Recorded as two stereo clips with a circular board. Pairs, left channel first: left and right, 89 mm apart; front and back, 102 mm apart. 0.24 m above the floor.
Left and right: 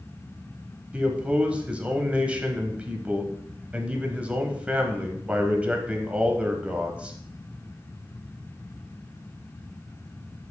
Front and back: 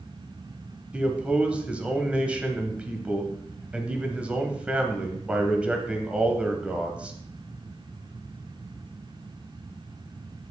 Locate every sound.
0.9 s a man speaking: 130° right, 1.1 m